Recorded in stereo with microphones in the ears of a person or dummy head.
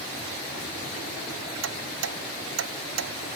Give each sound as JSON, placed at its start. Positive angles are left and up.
{"t": 1.6, "sound": "ticking", "side_deg": -85}